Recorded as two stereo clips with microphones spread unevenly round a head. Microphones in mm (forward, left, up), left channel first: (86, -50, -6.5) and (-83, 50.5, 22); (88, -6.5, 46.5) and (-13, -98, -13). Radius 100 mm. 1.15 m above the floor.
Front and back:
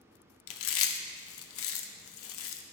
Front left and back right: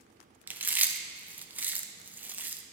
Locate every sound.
0.5 s chewing: 60° right, 0.7 m